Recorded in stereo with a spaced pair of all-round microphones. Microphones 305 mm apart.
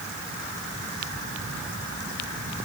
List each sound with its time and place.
Only background noise.